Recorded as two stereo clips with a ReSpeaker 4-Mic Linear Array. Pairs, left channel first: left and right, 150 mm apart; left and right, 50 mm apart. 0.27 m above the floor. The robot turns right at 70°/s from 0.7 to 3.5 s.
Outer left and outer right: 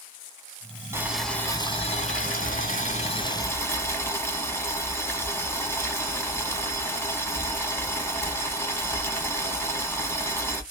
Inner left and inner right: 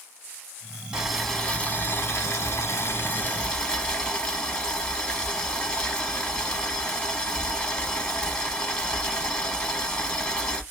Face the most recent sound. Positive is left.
turn(degrees=160)